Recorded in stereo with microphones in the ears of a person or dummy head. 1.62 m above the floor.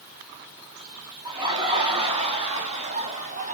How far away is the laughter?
About 3.5 m.